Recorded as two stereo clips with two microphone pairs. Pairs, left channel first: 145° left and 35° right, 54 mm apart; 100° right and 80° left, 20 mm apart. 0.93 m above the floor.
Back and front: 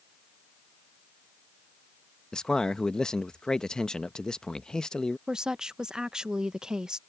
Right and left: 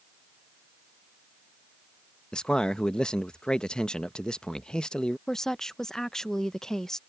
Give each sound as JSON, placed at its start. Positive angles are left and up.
{"t": 2.3, "sound": "a man speaking", "azimuth_deg": -135}
{"t": 5.3, "sound": "a woman speaking", "azimuth_deg": -95}